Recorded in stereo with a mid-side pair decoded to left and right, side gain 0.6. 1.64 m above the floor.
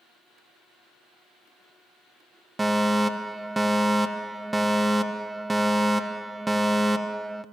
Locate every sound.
2.6 s a fire alarm: 15° right, 1.4 m